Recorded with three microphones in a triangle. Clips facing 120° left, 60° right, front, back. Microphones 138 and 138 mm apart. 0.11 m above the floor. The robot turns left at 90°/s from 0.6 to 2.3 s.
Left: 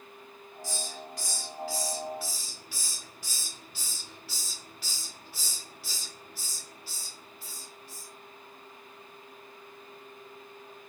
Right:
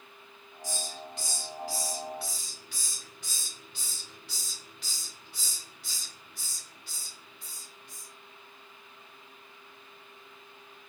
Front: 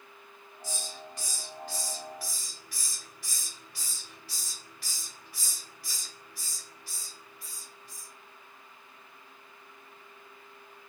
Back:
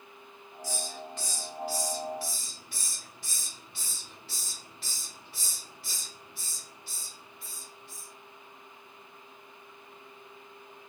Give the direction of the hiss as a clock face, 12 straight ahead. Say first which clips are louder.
Even, back 4 dB; 1 o'clock.